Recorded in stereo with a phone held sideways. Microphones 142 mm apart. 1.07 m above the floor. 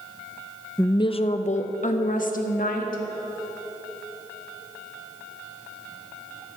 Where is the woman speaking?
15° left (ahead or behind), 0.5 m; by 3.0 s 75° left (ahead or behind), 2 m.